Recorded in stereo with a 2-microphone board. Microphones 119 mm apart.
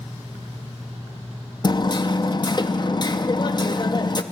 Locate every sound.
1.6 s hammering: 40° left (ahead or behind), 0.5 m